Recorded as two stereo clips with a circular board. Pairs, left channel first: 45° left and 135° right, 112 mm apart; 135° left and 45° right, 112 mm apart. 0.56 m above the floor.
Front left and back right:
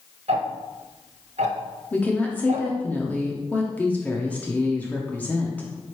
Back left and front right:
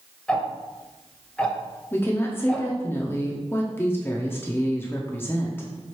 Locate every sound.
0.3 s ticking: 145° right, 0.6 m
1.9 s a woman speaking: 100° left, 0.6 m